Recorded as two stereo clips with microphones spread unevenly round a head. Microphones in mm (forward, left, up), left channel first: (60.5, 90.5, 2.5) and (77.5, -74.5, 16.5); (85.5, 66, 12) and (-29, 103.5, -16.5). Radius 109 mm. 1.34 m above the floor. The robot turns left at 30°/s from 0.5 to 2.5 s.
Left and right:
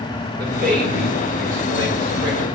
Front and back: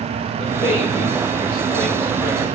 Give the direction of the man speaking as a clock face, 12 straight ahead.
2 o'clock.